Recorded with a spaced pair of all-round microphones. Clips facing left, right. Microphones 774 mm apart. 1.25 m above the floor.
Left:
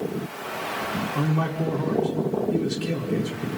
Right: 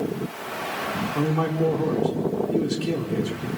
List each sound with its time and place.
1.1 s a man speaking: 5° left (ahead or behind), 3.5 m